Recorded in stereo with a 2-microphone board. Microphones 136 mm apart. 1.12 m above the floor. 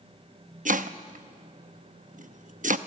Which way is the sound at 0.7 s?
70° right (ahead or behind).